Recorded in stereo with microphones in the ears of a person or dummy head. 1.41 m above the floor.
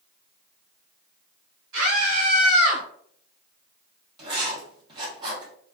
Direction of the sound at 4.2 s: 30° right (ahead or behind).